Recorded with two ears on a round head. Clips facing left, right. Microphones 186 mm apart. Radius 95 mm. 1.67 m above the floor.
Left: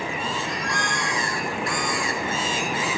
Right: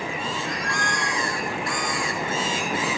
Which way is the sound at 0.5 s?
Centre (ahead or behind).